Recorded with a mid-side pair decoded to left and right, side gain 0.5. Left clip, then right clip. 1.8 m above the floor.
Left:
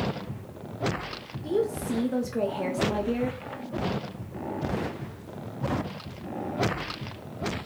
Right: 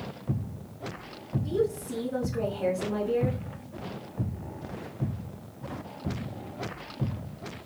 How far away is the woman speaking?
About 1.0 m.